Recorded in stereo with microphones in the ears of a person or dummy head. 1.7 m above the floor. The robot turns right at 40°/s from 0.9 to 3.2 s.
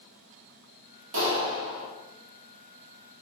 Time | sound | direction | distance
1.1 | a clap | 75° right (ahead or behind) | 2.5 m